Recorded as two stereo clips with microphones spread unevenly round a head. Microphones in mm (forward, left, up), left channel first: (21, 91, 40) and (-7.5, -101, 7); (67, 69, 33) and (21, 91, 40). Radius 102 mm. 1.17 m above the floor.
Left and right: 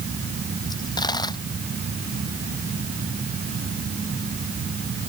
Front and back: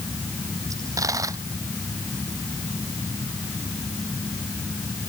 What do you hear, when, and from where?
0.7 s a dropped coin: 155° left